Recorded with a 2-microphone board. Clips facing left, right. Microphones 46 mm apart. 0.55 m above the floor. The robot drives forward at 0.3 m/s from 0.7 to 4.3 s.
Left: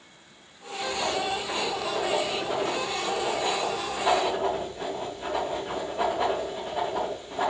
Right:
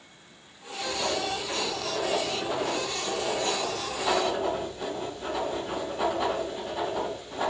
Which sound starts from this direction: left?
Writing, at 0.8 s.